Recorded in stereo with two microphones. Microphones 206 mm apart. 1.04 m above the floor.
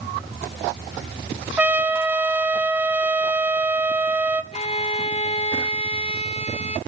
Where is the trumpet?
10° right (ahead or behind), 1.3 m.